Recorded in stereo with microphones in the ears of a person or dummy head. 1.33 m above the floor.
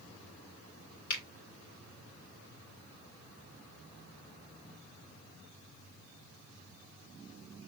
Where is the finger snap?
50° left (ahead or behind), 2 m.